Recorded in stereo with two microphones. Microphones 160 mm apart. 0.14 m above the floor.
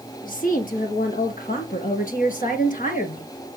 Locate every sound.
0.2 s a woman speaking: 60° left (ahead or behind), 4 m; by 3.6 s 55° left (ahead or behind), 2.5 m